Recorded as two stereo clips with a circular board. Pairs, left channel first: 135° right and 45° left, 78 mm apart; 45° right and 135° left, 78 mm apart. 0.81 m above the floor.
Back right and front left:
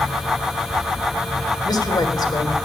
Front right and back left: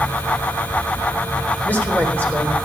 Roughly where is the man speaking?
Behind right.